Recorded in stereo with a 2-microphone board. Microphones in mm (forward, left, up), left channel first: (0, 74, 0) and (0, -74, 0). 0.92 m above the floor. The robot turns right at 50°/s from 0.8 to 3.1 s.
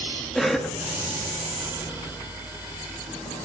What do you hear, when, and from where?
0.3 s a cough: centre (ahead or behind), 1.4 m